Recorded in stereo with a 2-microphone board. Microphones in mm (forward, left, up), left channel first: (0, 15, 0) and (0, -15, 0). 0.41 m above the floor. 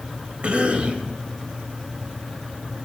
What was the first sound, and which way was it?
A cough, 45° right (ahead or behind).